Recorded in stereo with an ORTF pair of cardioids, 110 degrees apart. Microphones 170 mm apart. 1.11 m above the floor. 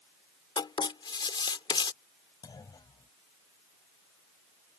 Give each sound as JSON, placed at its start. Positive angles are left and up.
{"t": 0.6, "sound": "writing", "azimuth_deg": 25}
{"t": 2.4, "sound": "a clunk", "azimuth_deg": 25}